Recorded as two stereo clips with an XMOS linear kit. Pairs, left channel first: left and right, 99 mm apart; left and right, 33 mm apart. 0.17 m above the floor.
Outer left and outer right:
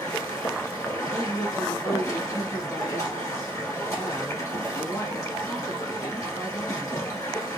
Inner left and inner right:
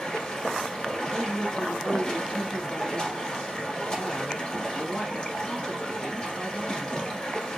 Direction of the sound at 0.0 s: 35° left (ahead or behind).